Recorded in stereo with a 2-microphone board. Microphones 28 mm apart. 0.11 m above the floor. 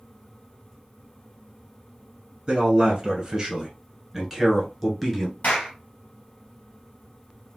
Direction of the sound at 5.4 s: 60° left (ahead or behind).